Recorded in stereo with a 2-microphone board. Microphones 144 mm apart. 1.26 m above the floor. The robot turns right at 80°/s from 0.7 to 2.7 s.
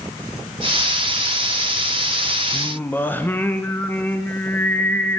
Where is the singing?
25° left (ahead or behind), 0.5 m; by 5.2 s 15° left (ahead or behind), 0.5 m.